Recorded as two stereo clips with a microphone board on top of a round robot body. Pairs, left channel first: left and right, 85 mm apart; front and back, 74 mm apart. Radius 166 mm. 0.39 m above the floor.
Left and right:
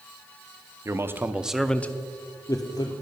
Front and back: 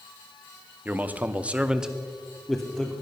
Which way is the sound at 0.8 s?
125° right.